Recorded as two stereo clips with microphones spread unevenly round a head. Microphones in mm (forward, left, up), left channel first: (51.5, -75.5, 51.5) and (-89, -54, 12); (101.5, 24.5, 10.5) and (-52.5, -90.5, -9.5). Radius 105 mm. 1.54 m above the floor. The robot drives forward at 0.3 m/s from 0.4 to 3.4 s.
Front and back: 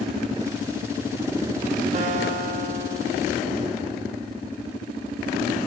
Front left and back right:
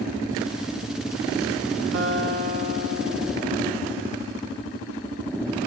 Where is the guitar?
145° right, 1.3 m; by 4.1 s 155° right, 1.7 m.